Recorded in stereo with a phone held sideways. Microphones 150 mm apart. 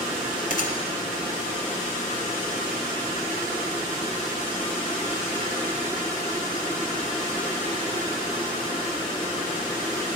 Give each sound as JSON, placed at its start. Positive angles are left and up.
{"t": 0.5, "sound": "a gunshot", "side_deg": 70, "distance_m": 2.5}